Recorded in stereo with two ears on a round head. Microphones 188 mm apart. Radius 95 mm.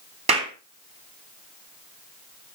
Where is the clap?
30° right (ahead or behind), 3 m.